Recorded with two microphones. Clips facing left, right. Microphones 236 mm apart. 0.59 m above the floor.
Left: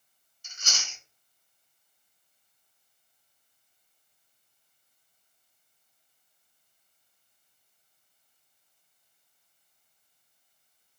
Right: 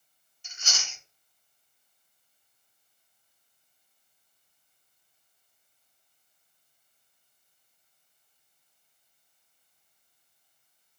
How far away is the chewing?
About 1.7 m.